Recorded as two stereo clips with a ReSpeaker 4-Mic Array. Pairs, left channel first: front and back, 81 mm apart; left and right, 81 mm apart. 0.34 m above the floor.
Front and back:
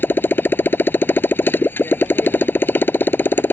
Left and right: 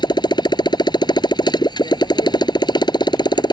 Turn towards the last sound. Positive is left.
turn(degrees=65)